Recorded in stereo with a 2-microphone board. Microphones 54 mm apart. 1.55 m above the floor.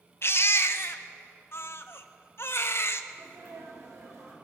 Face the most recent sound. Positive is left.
turn(degrees=-75)  # may be behind; listen again after turning